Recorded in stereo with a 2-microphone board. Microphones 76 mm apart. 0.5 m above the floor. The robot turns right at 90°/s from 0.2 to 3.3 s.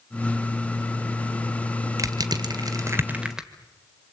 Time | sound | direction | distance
2.0 | crushing | 45° right (ahead or behind) | 1.8 m